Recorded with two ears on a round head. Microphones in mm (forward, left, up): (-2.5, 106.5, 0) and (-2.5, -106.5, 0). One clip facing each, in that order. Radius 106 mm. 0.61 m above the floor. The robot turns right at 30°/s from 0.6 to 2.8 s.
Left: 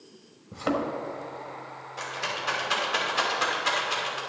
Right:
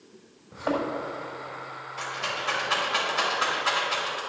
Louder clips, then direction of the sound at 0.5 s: Even; 45° left (ahead or behind).